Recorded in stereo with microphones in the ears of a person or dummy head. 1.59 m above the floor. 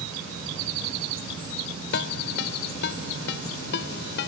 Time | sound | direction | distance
1.9 | a ringtone | 65° left (ahead or behind) | ?